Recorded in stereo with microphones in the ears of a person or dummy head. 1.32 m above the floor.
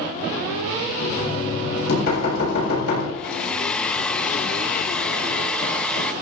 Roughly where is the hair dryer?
Centre.